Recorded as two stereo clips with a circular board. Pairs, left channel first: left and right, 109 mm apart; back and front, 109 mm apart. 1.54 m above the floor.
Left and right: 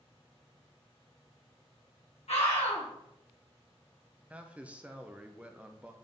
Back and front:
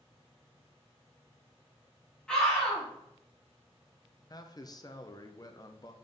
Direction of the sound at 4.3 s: 160° right.